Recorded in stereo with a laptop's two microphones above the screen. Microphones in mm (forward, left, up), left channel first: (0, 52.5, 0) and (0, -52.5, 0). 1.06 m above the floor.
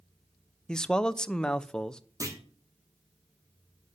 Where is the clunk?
30° right (ahead or behind), 2.5 m.